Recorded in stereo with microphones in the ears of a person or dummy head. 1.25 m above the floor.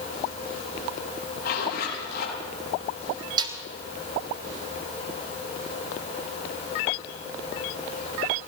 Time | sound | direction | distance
1.4 | a zipper | 60° left (ahead or behind) | 9 m
3.4 | a snare drum | 20° right (ahead or behind) | 1.6 m